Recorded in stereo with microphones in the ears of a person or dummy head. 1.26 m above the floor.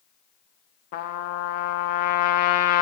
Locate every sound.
0.9 s a trumpet: 55° left (ahead or behind), 0.5 m